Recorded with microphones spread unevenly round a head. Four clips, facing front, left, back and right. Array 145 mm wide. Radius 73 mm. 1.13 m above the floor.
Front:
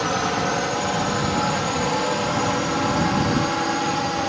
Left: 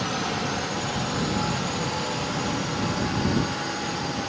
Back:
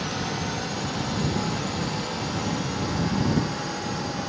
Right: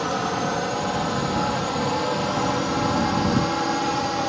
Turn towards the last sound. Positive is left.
turn(degrees=-45)